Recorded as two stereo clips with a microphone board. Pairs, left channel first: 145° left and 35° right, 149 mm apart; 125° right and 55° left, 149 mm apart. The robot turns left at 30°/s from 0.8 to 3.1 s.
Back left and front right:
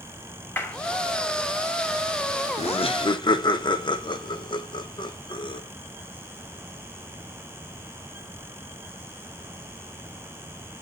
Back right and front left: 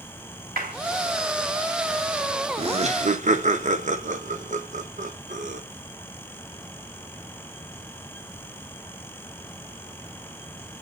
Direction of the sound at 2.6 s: 105° left.